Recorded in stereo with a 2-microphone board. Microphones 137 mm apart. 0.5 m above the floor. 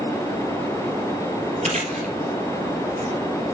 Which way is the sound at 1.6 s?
70° right (ahead or behind).